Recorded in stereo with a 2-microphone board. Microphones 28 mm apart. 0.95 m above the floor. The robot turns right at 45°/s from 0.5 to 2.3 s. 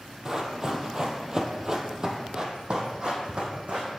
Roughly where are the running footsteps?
Right.